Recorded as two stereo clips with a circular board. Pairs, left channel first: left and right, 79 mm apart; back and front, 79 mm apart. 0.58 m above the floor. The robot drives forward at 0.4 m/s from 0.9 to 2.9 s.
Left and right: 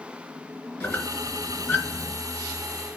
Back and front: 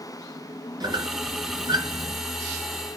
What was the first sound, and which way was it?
A squeak, 30° left.